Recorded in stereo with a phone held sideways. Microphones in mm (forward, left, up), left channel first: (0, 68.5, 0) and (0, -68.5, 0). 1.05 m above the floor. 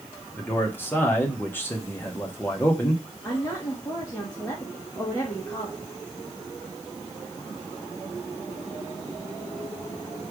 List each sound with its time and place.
0.4 s a man speaking: 15° left (ahead or behind), 1.3 m
3.2 s a woman speaking: 15° left (ahead or behind), 1.5 m